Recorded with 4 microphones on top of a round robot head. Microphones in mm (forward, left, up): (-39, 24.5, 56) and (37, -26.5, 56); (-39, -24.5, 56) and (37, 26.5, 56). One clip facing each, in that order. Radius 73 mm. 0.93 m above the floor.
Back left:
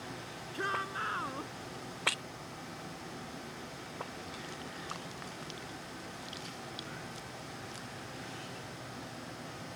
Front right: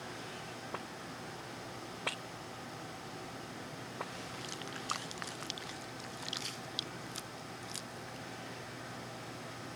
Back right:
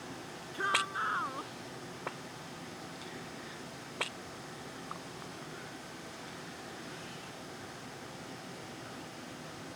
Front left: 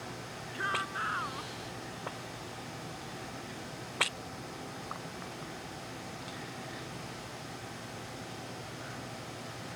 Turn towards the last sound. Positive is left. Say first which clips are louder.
# back left 13 dB, back right 1 dB
turn(degrees=145)